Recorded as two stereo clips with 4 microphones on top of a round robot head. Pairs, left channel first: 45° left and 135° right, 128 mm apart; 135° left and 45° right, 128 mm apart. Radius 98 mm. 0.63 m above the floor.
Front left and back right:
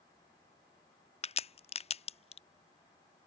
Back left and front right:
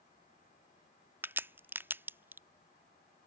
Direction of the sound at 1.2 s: 25° left.